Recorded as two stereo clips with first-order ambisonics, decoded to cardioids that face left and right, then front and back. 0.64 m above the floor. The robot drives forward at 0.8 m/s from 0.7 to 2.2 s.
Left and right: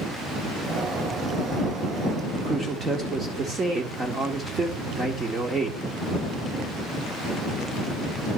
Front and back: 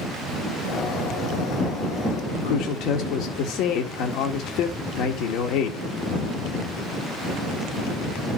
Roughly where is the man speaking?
Ahead.